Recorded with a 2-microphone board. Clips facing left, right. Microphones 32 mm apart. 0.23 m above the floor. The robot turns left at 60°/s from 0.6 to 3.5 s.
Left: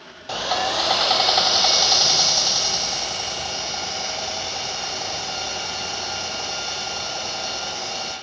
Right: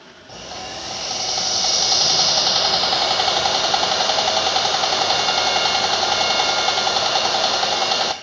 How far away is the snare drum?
No snare drum in this recording.